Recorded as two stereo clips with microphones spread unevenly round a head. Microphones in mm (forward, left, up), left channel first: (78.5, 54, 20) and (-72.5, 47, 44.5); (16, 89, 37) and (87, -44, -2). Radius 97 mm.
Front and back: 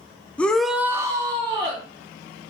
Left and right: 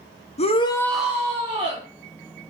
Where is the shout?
70° left, 0.6 m; by 1.8 s 110° right, 1.1 m.